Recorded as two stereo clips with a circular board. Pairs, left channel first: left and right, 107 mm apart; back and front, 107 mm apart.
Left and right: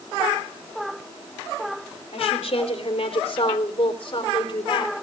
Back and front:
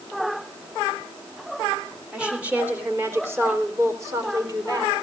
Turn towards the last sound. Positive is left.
turn(degrees=50)